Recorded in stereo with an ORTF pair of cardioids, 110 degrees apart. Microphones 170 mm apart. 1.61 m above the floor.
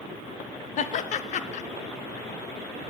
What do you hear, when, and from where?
0.8 s laughter: 50° left, 0.6 m